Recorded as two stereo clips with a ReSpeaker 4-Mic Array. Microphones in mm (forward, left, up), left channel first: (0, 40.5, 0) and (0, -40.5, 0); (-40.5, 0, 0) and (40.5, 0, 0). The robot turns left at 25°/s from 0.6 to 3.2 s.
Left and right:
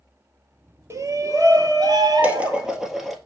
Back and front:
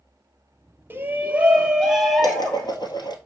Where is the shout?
55° right, 1.9 m; by 2.7 s 100° right, 1.9 m.